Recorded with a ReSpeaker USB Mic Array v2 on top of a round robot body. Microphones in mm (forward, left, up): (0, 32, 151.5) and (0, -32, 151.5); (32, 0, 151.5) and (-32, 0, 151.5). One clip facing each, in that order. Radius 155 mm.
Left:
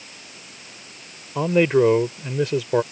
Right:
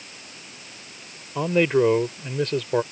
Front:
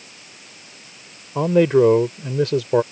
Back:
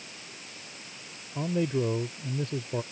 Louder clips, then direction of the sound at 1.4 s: Left 2 dB, front 14 dB; 5° left.